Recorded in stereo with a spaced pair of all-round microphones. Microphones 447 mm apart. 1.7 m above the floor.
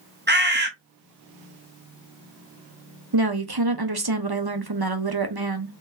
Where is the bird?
25° right (ahead or behind), 1.1 m.